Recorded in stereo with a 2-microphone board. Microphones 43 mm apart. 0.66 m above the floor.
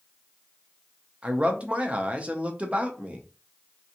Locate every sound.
1.2 s a man speaking: 30° right (ahead or behind), 0.5 m